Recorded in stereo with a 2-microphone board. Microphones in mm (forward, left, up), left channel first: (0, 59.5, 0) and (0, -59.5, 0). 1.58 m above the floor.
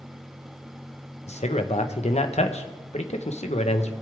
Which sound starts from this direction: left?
A man speaking, at 1.3 s.